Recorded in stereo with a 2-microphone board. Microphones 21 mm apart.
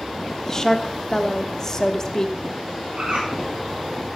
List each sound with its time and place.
0.5 s a woman speaking: 25° left (ahead or behind), 1.0 m
3.0 s a bird: 75° right (ahead or behind), 9 m